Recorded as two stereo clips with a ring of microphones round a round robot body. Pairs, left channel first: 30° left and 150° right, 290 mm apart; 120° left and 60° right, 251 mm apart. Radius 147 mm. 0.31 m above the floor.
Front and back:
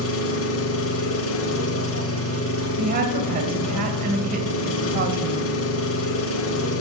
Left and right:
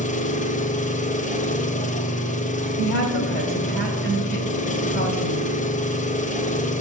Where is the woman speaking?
160° left, 2 m.